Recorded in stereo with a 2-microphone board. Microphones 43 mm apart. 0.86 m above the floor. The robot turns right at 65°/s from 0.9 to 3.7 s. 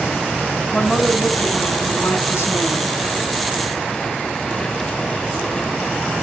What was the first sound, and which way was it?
A woman speaking, 20° left.